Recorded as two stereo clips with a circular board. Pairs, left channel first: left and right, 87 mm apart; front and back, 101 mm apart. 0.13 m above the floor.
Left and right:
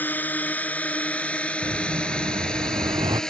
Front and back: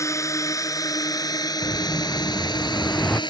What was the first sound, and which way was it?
A drone, 35° left.